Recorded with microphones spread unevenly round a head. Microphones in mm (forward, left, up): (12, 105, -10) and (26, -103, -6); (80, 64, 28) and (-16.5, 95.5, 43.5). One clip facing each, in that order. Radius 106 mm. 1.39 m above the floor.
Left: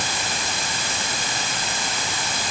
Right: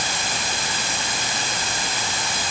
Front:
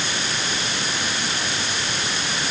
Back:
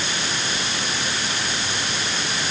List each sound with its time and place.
Only background noise.